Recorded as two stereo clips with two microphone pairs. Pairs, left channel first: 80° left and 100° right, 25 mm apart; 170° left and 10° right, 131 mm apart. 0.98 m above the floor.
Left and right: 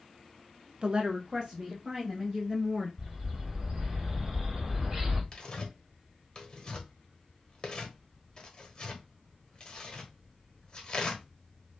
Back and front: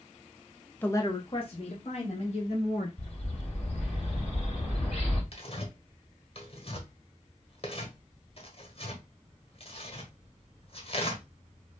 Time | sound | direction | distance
0.8 | a woman speaking | 120° right | 0.5 m
3.0 | a bird | 155° right | 3 m
5.3 | tearing paper | 135° left | 1.2 m